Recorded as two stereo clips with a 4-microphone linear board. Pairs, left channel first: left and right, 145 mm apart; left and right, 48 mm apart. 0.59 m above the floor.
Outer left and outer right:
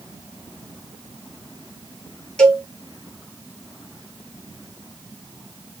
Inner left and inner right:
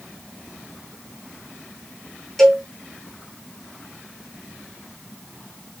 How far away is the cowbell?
About 3 m.